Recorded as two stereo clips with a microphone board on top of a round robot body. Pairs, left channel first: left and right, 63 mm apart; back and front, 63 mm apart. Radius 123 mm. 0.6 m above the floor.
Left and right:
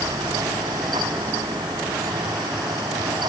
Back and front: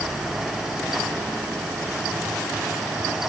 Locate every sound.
Only background noise.